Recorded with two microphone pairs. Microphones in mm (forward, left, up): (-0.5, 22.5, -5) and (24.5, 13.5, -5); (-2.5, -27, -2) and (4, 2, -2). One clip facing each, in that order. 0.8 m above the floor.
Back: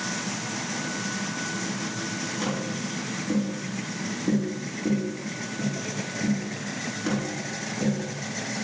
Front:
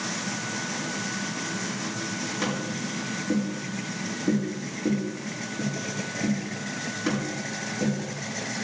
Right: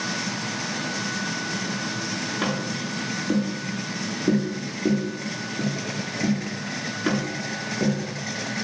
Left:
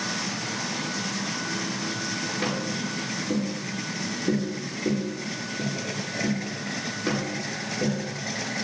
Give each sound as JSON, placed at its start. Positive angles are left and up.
{"t": 2.4, "sound": "tapping", "azimuth_deg": -100, "distance_m": 8.0}